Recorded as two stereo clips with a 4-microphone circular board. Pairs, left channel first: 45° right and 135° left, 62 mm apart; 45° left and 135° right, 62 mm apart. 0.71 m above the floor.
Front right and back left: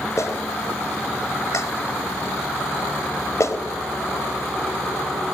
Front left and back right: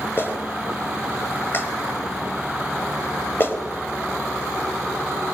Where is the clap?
5° right, 3.5 m.